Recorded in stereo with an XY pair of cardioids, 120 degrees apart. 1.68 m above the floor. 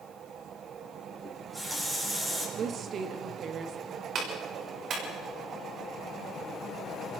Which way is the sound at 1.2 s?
15° right.